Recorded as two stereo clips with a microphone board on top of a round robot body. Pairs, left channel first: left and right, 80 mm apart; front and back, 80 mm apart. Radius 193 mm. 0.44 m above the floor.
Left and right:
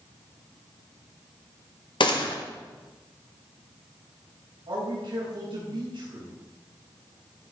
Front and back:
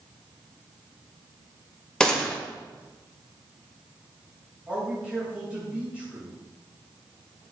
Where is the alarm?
I don't hear an alarm.